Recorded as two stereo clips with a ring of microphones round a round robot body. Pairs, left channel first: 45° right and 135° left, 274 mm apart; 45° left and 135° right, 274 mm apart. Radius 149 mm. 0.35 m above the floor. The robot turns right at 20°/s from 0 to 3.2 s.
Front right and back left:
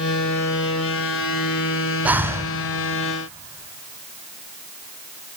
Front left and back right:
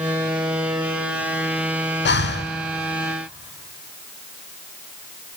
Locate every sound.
2.0 s breathing: 55° left, 0.8 m; by 2.5 s 60° left, 0.8 m